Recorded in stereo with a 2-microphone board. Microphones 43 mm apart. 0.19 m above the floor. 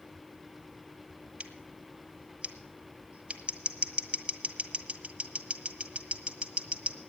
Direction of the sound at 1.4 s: 25° right (ahead or behind).